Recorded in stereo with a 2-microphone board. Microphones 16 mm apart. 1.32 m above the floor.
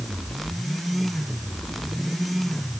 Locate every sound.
Only background noise.